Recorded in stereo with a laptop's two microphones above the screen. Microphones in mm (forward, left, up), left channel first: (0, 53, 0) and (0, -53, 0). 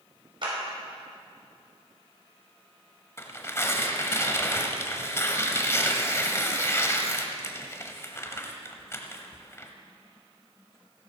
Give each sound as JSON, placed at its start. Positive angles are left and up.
{"t": 0.4, "sound": "a clap", "side_deg": -50, "distance_m": 5.0}
{"t": 3.2, "sound": "tearing paper", "side_deg": 25, "distance_m": 0.9}